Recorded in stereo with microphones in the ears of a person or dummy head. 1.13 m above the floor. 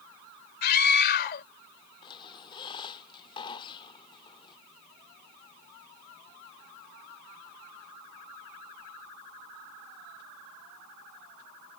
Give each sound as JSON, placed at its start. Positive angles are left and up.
{"t": 0.6, "sound": "a scream", "side_deg": 50}
{"t": 2.0, "sound": "a squeak", "side_deg": 25}